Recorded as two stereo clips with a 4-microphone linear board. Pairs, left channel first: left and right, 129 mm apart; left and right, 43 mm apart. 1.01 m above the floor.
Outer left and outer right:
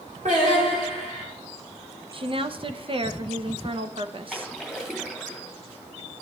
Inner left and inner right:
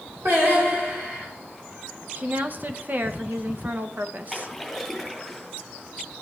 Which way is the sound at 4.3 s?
5° right (ahead or behind).